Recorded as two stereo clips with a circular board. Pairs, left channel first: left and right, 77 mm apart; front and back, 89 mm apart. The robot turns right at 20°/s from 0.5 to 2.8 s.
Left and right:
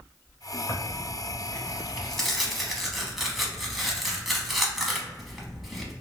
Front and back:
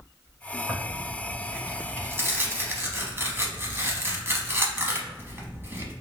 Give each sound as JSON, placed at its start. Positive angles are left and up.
{"t": 0.7, "sound": "tearing paper", "azimuth_deg": 140, "distance_m": 0.8}